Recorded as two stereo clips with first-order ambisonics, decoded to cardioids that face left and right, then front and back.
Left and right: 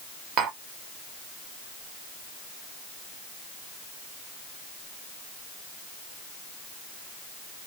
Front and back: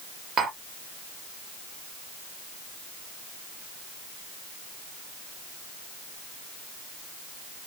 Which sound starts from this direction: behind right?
Tapping, at 0.4 s.